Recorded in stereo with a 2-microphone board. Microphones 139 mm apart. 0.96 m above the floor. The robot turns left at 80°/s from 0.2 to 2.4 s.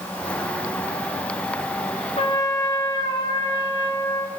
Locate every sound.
2.2 s a trumpet: 45° left (ahead or behind), 1.0 m; by 4.3 s 30° left (ahead or behind), 1.0 m